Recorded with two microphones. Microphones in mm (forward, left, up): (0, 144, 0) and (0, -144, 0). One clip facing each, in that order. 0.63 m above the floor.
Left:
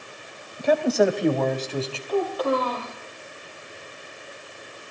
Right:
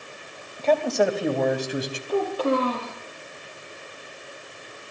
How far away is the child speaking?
About 9.5 m.